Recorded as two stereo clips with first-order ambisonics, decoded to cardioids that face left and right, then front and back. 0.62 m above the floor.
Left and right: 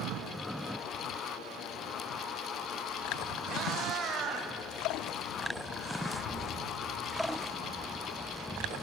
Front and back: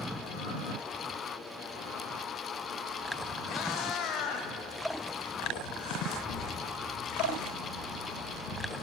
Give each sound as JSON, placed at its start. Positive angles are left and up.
{"t": 3.5, "sound": "a cat meowing", "azimuth_deg": -35, "distance_m": 0.8}
{"t": 6.3, "sound": "a thud", "azimuth_deg": 0, "distance_m": 4.0}